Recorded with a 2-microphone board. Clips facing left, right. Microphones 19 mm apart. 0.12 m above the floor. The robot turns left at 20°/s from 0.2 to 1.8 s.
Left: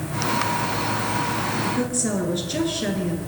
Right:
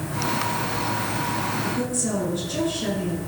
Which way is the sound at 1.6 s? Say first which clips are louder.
Left 2 dB; 25° left (ahead or behind).